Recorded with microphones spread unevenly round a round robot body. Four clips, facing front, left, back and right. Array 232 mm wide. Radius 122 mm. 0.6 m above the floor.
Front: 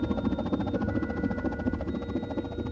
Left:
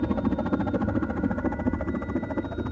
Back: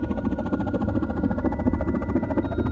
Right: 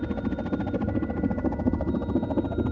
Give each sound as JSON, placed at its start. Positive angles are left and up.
{"t": 0.0, "sound": "a helicopter", "azimuth_deg": 110}